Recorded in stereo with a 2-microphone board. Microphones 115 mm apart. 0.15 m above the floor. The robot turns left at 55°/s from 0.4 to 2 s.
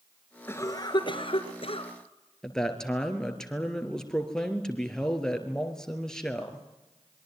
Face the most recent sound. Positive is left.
turn(degrees=5)  # may be behind; listen again after turning